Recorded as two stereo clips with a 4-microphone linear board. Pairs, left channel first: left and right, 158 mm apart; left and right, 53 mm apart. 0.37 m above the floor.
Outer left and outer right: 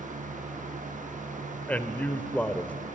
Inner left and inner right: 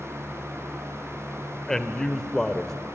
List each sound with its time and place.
1.7 s a man speaking: 10° left (ahead or behind), 1.1 m